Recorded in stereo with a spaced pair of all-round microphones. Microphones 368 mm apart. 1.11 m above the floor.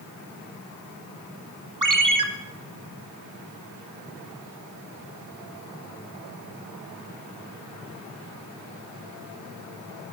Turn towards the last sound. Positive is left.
turn(degrees=-55)  # may be behind; listen again after turning